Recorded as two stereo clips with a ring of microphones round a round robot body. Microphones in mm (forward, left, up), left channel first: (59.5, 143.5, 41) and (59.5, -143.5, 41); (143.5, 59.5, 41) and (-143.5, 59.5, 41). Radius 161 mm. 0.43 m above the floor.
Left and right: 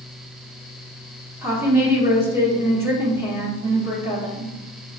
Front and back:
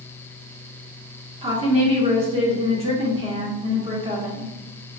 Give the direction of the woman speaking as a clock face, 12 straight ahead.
5 o'clock.